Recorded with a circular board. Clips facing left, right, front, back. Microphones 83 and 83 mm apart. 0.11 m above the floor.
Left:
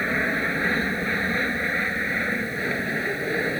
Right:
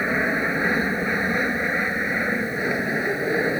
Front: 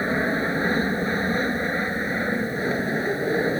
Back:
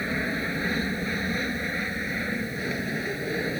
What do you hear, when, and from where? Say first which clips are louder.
0.0 s an aircraft: right 2 dB, front 6 dB; 20° right; by 3.6 s 25° right